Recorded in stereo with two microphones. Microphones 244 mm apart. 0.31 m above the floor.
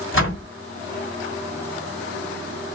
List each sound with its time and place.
0.1 s a door slam: 55° left (ahead or behind), 1.7 m